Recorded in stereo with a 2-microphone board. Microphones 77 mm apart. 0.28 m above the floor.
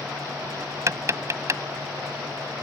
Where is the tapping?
40° right (ahead or behind).